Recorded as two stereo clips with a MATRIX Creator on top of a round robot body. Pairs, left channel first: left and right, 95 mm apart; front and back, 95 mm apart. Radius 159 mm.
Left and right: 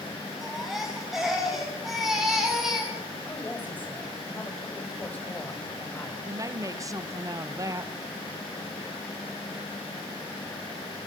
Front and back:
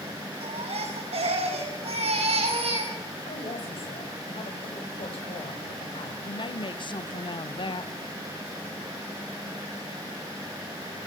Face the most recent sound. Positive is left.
turn(degrees=-35)